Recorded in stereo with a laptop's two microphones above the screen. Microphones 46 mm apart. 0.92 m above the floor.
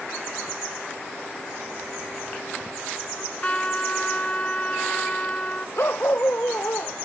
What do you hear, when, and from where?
3.2 s a trumpet: 25° left (ahead or behind)
5.8 s a dog barking: 50° left (ahead or behind)